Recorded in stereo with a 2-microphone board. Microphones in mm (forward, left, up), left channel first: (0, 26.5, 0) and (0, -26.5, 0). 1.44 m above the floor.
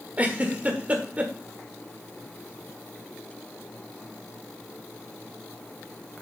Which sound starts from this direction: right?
A giggle, at 0.2 s.